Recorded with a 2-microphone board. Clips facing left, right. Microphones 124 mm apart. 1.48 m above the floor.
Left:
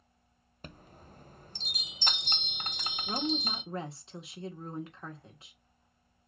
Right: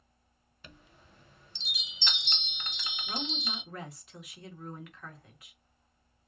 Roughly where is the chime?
Left.